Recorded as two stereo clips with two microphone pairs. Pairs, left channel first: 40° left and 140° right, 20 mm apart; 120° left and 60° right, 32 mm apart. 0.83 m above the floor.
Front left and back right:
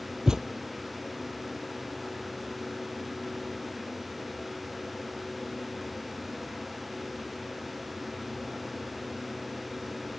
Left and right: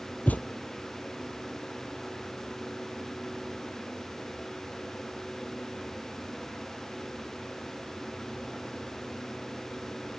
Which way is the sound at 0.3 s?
160° left.